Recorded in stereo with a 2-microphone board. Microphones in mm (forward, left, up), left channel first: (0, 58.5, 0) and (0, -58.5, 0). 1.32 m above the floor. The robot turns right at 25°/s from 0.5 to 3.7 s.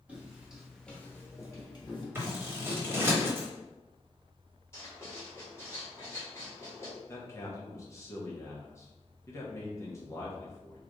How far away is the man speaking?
About 1.0 m.